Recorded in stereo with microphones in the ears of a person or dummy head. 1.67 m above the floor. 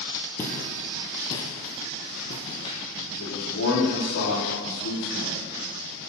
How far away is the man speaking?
About 4.5 m.